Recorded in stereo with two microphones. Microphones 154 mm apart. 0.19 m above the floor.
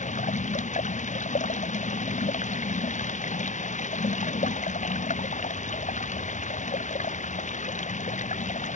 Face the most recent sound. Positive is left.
turn(degrees=50)  # may be behind; listen again after turning